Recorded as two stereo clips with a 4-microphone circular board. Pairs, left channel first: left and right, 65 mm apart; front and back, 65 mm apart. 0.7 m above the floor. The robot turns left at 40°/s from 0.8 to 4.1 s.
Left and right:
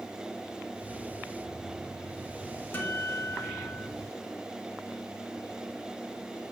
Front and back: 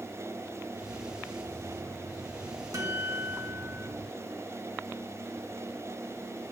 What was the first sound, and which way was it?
A guitar, 145° left.